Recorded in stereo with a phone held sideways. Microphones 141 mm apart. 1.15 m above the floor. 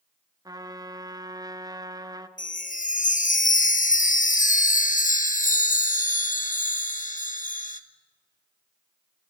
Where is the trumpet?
25° right (ahead or behind), 0.7 m.